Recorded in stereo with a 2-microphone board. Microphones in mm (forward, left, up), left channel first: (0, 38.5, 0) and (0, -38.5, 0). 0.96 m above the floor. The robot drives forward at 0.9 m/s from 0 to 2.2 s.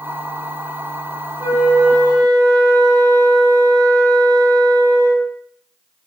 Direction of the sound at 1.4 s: 35° right (ahead or behind).